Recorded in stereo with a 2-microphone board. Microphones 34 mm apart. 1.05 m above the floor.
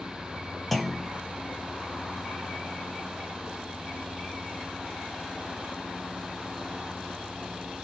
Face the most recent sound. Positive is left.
turn(degrees=5)  # may be behind; listen again after turning